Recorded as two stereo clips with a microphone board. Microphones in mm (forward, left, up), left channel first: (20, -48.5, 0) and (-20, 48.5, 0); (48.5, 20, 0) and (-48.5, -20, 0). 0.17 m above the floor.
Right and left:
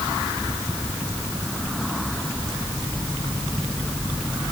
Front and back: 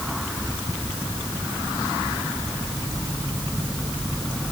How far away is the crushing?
No crushing in this recording.